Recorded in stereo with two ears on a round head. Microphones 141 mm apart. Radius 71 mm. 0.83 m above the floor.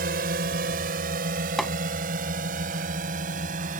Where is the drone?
60° right (ahead or behind); by 3.8 s 50° right (ahead or behind).